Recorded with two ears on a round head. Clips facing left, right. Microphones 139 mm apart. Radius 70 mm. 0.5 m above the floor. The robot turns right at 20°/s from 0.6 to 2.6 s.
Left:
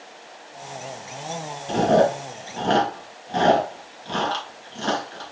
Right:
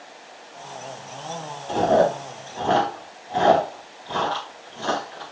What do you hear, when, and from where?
1.7 s chewing: 70° left (ahead or behind), 2.5 m; by 5.3 s 55° left (ahead or behind), 2.5 m